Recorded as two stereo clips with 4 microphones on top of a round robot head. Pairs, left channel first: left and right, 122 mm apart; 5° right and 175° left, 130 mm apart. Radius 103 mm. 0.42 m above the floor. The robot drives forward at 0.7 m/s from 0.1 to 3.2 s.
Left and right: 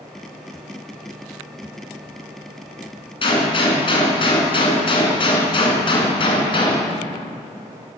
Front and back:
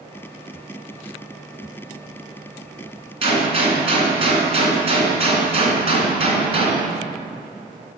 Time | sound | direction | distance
3.2 | a gunshot | 135° left | 2.5 m